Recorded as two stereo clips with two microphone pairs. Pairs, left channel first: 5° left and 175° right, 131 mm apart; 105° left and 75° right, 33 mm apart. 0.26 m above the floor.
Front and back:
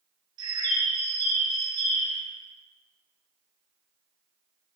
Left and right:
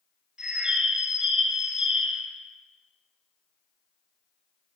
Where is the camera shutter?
I don't hear a camera shutter.